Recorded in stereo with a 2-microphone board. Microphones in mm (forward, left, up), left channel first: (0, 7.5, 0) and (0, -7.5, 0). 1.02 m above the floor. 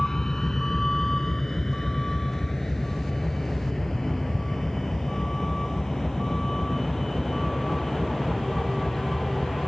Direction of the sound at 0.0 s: 35° left (ahead or behind).